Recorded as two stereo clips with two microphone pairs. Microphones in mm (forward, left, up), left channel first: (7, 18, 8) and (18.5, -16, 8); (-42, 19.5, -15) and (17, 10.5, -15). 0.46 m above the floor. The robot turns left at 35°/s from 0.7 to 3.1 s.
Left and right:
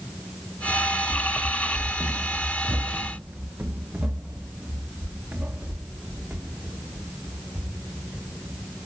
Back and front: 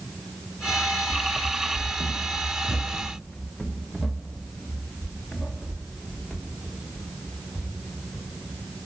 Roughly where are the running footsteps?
Behind.